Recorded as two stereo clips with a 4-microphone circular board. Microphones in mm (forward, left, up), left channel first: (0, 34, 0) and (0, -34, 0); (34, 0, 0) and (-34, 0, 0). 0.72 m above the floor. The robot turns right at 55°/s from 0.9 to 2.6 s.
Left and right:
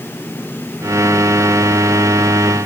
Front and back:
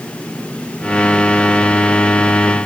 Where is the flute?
No flute in this recording.